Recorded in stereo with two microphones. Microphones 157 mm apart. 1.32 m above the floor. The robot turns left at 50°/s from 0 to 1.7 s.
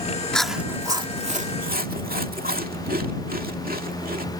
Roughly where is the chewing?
Centre.